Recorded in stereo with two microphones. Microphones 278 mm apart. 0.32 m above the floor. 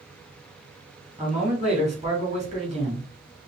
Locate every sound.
1.2 s a man speaking: 25° right (ahead or behind), 3 m